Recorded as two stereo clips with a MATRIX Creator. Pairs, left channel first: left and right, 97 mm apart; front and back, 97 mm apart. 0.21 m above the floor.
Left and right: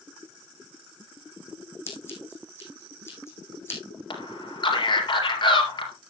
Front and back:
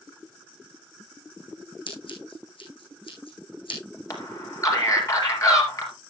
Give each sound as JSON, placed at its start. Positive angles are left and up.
{"t": 1.9, "sound": "scissors", "azimuth_deg": 25, "distance_m": 4.0}
{"t": 4.1, "sound": "a man speaking", "azimuth_deg": 55, "distance_m": 4.0}